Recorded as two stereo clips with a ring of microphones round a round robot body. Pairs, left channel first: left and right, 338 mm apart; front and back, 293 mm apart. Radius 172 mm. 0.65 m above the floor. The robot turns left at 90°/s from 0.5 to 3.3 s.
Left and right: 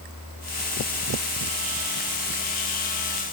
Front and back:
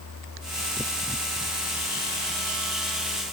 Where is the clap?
I don't hear a clap.